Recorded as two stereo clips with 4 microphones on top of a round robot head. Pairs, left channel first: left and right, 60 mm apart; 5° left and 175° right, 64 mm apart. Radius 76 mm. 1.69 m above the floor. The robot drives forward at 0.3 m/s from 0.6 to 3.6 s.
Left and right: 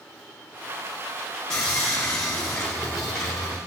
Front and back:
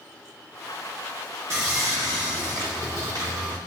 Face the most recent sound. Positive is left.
turn(degrees=175)